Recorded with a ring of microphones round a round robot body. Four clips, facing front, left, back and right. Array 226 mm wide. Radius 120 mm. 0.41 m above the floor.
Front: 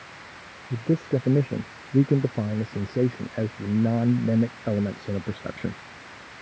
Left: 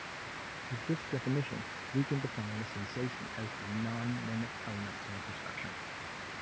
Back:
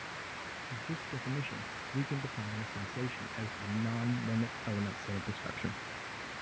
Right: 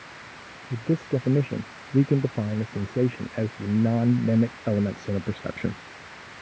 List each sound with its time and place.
0.7 s a man speaking: 35° right; by 5.8 s 60° right